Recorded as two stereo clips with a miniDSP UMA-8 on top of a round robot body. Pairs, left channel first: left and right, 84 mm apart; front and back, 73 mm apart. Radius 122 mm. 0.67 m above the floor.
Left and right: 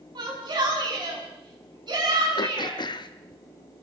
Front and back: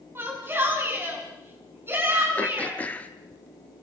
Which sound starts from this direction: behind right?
A shout, at 0.1 s.